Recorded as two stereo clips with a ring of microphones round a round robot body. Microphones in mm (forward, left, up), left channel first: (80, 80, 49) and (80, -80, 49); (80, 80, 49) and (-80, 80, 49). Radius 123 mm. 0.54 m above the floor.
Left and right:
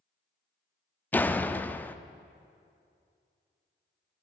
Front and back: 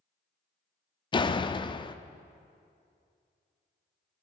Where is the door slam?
20° left, 0.5 m.